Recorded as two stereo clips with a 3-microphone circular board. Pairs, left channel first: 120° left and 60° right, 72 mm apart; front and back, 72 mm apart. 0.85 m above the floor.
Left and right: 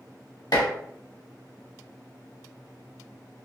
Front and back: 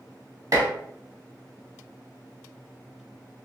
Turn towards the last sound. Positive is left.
turn(degrees=140)